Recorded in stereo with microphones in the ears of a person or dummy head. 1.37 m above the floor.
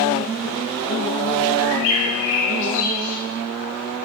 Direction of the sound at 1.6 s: 75° left (ahead or behind).